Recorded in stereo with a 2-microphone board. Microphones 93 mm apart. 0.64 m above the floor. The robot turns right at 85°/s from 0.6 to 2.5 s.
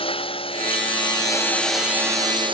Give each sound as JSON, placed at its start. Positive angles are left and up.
{"t": 0.0, "sound": "a lawn mower", "side_deg": 85}